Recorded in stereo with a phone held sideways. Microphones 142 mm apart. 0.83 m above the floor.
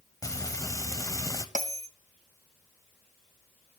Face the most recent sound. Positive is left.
turn(degrees=-65)  # may be behind; listen again after turning